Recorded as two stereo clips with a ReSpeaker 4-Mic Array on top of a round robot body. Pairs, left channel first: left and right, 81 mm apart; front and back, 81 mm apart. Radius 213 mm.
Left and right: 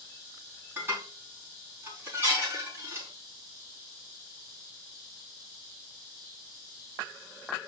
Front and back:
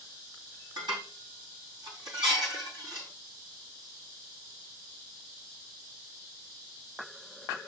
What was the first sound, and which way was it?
Dishes clattering, 155° right.